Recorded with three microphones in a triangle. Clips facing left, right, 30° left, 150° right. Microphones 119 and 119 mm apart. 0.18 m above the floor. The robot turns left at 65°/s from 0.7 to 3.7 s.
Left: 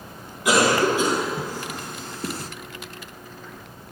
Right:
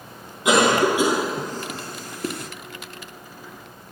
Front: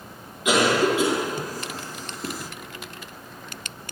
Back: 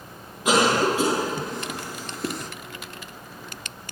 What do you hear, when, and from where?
0.5 s a cough: 140° right, 1.9 m; by 2.5 s 105° left, 1.9 m